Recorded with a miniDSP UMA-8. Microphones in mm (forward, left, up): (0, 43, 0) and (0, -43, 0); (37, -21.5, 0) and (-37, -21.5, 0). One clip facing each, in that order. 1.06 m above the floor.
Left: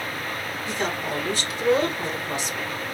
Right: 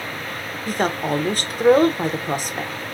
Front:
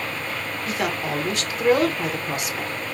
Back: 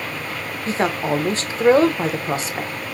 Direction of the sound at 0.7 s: 125° right.